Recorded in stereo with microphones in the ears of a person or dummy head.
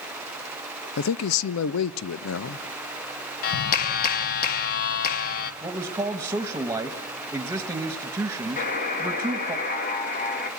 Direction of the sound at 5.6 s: 20° right (ahead or behind).